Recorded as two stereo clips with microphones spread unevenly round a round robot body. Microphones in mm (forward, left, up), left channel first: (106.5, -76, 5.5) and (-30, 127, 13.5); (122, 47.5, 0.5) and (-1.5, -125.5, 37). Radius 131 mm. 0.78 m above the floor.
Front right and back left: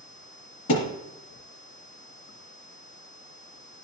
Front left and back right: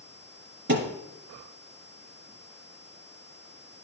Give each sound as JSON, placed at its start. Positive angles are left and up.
{"t": 0.7, "sound": "a thud", "azimuth_deg": -95, "distance_m": 3.5}